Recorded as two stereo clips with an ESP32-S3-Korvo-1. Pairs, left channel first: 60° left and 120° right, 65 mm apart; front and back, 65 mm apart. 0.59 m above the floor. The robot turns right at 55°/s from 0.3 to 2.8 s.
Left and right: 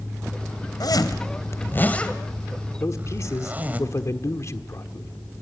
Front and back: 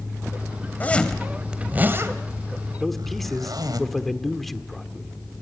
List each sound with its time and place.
0.8 s a zipper: 65° left, 2 m; by 3.8 s 175° left, 2 m
2.8 s a man speaking: 90° left, 1.5 m